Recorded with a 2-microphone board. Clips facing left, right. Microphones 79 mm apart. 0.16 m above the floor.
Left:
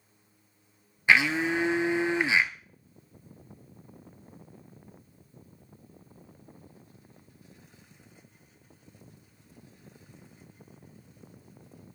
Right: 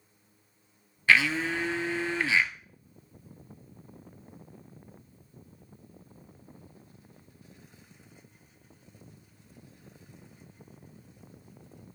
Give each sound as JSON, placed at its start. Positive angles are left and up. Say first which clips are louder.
{"t": 1.1, "sound": "a blender", "louder": "left 1 dB", "side_deg": 20, "distance_m": 0.7}